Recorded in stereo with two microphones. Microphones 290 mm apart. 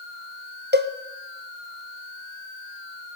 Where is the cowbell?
35° right (ahead or behind), 1.5 m.